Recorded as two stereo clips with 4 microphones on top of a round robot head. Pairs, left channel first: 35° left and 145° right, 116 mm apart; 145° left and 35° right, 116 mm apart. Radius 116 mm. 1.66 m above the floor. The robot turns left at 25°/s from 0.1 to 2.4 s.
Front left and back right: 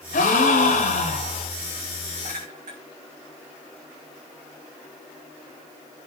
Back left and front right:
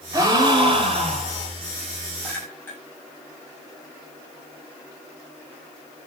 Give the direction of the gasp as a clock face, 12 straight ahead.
11 o'clock.